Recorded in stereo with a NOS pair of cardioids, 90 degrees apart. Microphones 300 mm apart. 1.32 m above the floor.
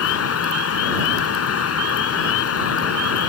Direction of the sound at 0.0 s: 50° left.